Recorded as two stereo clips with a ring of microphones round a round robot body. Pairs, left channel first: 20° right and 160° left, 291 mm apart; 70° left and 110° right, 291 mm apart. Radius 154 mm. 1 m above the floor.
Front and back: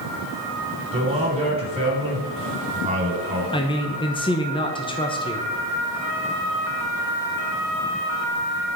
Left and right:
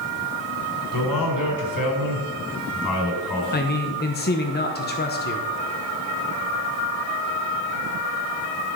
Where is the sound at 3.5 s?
40° left, 0.9 m.